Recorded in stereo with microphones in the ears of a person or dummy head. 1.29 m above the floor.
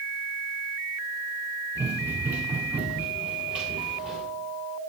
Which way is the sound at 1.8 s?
15° right (ahead or behind).